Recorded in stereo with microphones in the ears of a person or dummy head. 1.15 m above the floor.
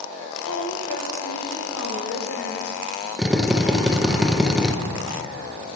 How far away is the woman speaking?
About 5 m.